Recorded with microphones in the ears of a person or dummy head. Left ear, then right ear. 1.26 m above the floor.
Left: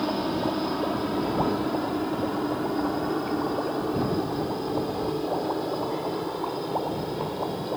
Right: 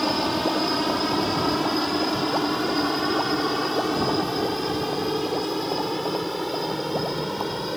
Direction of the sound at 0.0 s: 65° right (ahead or behind).